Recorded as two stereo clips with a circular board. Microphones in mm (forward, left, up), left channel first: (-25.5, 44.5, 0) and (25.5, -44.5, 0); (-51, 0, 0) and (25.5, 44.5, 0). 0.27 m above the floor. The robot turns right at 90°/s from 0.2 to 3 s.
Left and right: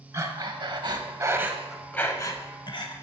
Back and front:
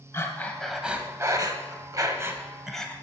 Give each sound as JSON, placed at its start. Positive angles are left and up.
{"t": 0.1, "sound": "breathing", "azimuth_deg": -105, "distance_m": 0.6}